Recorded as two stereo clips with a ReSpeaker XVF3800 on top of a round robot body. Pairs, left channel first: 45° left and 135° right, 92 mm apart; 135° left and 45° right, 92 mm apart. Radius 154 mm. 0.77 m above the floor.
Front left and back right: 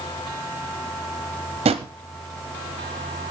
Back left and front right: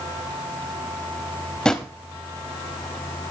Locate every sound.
1.6 s a drawer: 145° right, 0.5 m